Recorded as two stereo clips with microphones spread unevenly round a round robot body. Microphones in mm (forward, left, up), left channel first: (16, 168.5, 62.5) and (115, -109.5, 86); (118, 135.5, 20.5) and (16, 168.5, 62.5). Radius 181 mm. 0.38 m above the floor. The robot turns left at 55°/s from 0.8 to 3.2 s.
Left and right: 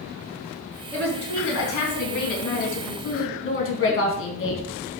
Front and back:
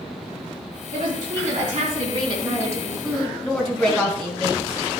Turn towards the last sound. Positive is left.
turn(degrees=65)